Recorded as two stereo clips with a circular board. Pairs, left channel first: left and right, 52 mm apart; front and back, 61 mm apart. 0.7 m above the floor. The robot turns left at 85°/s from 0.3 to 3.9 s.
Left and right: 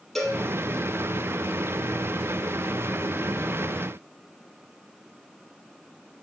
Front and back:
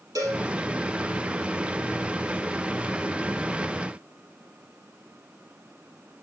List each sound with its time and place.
0.1 s a cowbell: straight behind, 3.5 m; by 0.4 s 170° left, 3.5 m